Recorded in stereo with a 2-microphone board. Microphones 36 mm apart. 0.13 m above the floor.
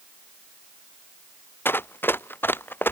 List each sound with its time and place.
1.6 s running footsteps: 75° left (ahead or behind); by 2.9 s 70° left (ahead or behind)